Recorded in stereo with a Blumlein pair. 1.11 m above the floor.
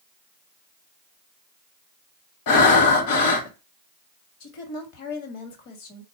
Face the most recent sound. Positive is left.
turn(degrees=40)